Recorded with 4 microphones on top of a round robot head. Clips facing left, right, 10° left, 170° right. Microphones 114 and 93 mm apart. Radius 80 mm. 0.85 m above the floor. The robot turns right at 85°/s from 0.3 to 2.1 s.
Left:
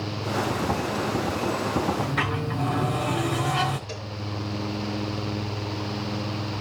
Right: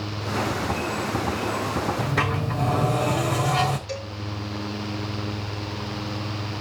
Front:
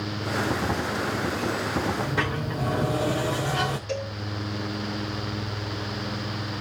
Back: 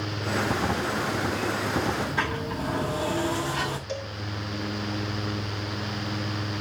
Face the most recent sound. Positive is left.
turn(degrees=-5)